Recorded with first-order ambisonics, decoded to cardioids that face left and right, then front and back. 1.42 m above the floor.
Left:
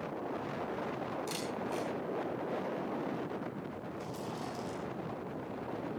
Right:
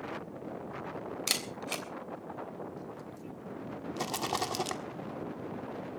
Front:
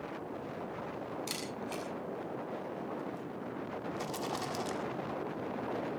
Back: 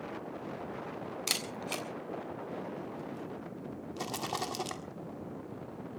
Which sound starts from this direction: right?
A rattle, at 4.0 s.